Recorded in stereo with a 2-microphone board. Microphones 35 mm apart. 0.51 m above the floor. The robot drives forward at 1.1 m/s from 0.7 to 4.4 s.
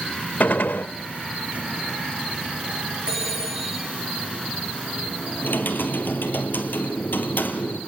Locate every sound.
0.4 s a gunshot: 65° left (ahead or behind), 0.7 m; by 0.9 s 75° left (ahead or behind), 0.6 m
3.1 s a phone ringing: 35° right (ahead or behind), 5.5 m; by 3.9 s 30° right (ahead or behind), 6.5 m
5.4 s typing on a keyboard: 80° left, 2.5 m